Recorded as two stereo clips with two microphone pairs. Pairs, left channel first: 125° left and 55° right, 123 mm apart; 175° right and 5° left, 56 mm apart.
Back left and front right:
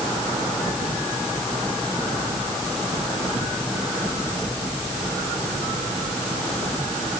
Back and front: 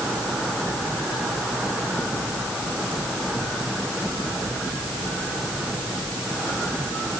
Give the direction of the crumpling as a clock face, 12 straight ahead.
I don't hear crumpling.